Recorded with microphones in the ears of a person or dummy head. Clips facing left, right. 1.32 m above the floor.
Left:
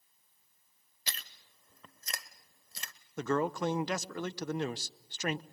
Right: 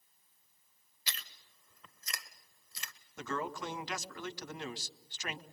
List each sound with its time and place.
1.1 s chewing: 40° left (ahead or behind), 1.2 m
3.2 s a man speaking: 40° left (ahead or behind), 0.8 m